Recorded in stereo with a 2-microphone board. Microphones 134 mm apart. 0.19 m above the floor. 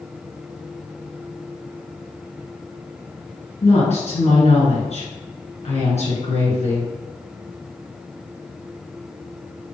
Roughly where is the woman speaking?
Left.